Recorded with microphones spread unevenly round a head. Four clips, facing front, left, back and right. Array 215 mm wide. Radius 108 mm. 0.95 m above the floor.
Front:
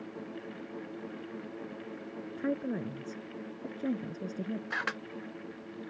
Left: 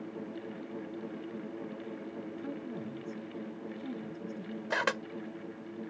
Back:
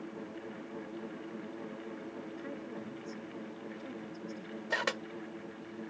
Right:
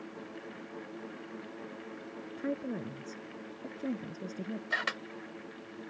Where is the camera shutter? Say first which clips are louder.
Left 7 dB, back 1 dB; 110° left.